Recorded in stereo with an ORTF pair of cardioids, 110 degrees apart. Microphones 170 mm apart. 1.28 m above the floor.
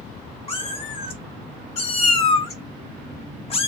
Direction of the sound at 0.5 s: 35° left.